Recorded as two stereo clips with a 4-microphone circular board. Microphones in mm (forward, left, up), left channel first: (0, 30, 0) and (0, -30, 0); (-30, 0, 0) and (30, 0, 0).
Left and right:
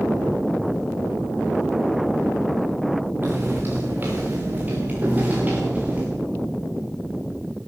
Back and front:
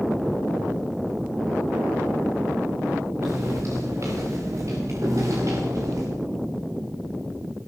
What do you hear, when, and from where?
3.2 s footsteps: 35° right, 6.5 m; by 6.0 s 25° right, 10.5 m